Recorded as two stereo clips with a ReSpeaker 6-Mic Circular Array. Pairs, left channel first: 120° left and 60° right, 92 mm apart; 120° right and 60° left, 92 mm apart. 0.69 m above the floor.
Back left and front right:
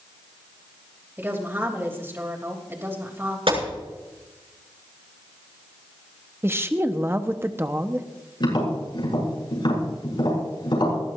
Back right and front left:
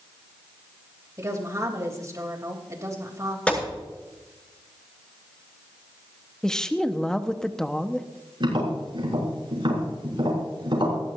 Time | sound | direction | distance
1.2 | a woman speaking | 5° left | 3 m
3.5 | a gunshot | 40° right | 7.5 m
6.4 | a woman speaking | 45° right | 1.0 m
8.4 | tapping | 90° left | 7 m